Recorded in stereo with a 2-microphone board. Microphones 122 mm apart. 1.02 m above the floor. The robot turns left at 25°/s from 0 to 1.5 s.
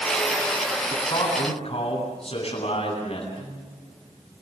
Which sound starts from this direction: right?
A guitar, at 3.4 s.